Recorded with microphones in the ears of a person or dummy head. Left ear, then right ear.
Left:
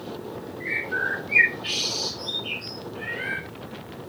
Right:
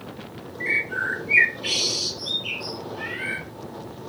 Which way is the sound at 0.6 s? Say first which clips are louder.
Right 3 dB; 60° right (ahead or behind).